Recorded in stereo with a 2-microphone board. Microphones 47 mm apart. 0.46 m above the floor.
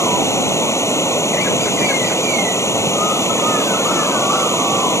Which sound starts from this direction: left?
Running water, at 0.0 s.